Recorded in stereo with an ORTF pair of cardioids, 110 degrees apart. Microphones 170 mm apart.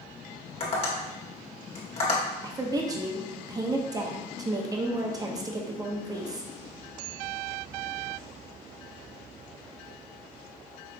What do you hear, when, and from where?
0.6 s tapping: 35° left, 1.9 m
2.4 s a woman speaking: 20° right, 1.0 m